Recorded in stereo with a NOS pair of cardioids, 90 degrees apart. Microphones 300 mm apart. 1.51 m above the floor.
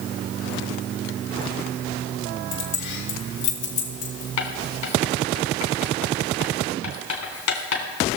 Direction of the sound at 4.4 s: 65° left.